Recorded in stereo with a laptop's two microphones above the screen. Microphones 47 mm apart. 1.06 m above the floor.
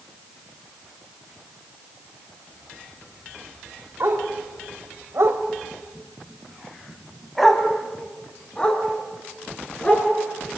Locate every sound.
4.0 s a dog barking: 75° right (ahead or behind), 3 m; by 10.1 s 25° left (ahead or behind), 6 m